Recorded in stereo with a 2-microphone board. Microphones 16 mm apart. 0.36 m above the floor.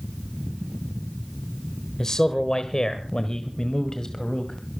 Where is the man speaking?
35° left (ahead or behind), 1.2 m; by 4.6 s 45° left (ahead or behind), 1.9 m.